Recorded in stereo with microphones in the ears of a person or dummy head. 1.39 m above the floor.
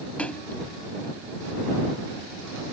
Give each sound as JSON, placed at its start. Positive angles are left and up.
{"t": 0.2, "sound": "a splash", "side_deg": 5}